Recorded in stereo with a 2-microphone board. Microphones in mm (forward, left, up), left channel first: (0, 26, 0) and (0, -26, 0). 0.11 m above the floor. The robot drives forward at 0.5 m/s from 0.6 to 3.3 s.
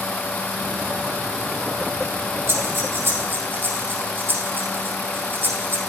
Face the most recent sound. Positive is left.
turn(degrees=-45)  # may be behind; listen again after turning